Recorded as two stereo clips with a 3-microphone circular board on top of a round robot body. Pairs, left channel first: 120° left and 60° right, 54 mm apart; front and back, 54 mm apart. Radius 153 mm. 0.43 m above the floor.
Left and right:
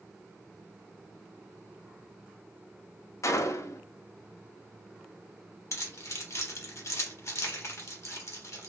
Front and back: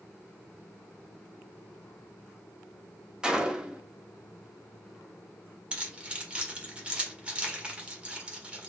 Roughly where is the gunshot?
Left.